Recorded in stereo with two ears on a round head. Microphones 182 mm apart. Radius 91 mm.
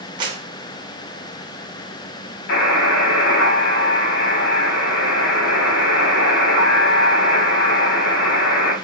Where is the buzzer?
50° left (ahead or behind), 4 m.